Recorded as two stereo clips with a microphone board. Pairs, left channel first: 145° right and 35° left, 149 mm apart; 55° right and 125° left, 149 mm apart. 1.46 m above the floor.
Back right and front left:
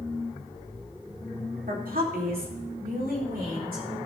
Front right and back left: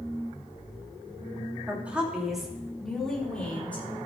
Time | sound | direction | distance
1.7 | a woman speaking | 45° left | 3 m